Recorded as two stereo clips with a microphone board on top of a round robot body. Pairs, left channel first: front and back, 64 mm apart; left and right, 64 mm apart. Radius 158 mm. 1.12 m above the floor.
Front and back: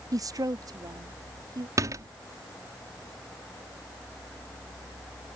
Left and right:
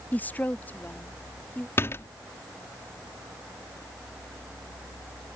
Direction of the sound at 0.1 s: 155° left.